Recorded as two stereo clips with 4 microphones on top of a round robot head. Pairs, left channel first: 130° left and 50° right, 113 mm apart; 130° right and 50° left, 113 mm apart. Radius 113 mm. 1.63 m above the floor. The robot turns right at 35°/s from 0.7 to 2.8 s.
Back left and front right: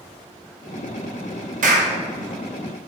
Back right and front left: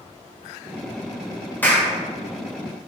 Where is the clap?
55° right, 2 m; by 1.9 s 45° right, 2 m.